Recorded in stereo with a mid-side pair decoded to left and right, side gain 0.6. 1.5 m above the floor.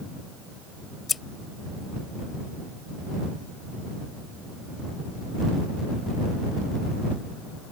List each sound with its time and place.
1.1 s scissors: 25° left